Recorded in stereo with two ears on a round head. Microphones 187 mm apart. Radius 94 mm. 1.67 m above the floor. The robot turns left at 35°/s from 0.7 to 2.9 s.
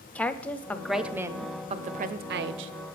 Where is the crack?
I don't hear a crack.